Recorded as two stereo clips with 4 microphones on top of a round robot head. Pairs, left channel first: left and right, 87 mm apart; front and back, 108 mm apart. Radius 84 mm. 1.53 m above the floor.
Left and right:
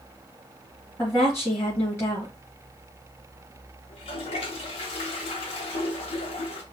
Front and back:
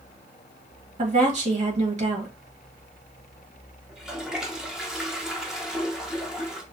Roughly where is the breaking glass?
No breaking glass in this recording.